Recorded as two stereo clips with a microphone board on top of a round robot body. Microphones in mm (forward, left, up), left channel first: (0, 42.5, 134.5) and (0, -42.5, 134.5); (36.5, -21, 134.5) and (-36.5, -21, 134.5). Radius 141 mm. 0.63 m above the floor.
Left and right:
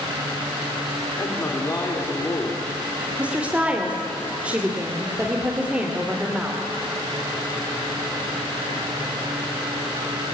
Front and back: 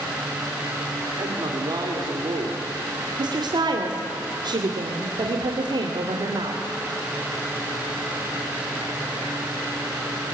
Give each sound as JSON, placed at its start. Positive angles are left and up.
{"t": 1.2, "sound": "a man speaking", "azimuth_deg": 150, "distance_m": 3.0}
{"t": 3.2, "sound": "a woman speaking", "azimuth_deg": -165, "distance_m": 2.5}